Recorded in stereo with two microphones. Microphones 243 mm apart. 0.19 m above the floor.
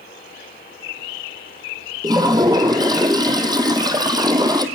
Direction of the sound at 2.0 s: 15° right (ahead or behind).